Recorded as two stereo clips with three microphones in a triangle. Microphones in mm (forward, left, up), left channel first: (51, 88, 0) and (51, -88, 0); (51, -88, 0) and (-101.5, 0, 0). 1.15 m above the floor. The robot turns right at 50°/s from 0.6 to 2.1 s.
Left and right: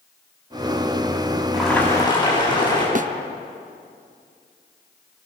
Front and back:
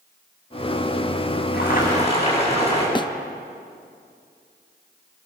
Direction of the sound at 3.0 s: 85° right.